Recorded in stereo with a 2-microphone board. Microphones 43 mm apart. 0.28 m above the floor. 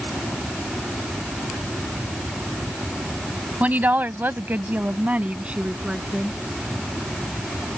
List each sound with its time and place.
3.6 s a woman speaking: 35° right (ahead or behind); by 6.4 s 20° right (ahead or behind)